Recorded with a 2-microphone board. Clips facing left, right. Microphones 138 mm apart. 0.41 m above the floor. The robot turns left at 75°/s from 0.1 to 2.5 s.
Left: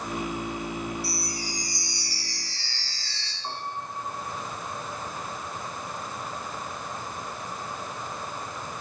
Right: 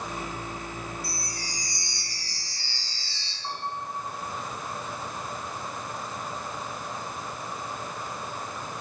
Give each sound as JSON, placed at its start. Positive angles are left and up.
{"t": 1.0, "sound": "a chime", "azimuth_deg": -45, "distance_m": 5.0}
{"t": 3.4, "sound": "a piano", "side_deg": 15, "distance_m": 6.5}